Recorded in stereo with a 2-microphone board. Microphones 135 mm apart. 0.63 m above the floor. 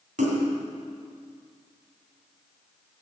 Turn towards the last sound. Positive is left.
turn(degrees=-80)